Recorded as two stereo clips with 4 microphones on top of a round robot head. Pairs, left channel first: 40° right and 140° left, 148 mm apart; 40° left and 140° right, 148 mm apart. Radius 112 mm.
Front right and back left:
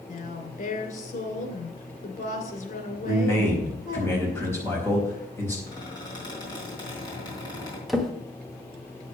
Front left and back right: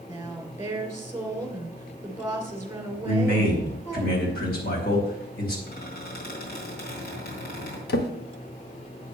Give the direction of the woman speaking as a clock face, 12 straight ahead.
2 o'clock.